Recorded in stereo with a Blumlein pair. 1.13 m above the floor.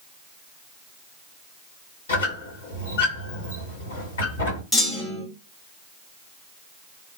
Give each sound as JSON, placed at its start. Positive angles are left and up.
{"t": 2.1, "sound": "a squeak", "azimuth_deg": 65, "distance_m": 1.9}
{"t": 4.7, "sound": "a clunk", "azimuth_deg": 0, "distance_m": 1.3}